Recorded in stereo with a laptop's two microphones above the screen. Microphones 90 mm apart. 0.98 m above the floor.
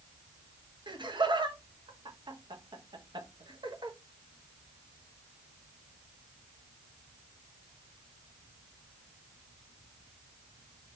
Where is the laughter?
55° right (ahead or behind), 1.1 m.